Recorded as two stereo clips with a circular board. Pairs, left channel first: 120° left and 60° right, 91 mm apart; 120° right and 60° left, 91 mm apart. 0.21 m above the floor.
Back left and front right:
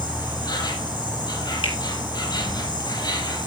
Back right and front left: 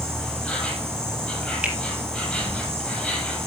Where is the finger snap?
135° left, 3 m.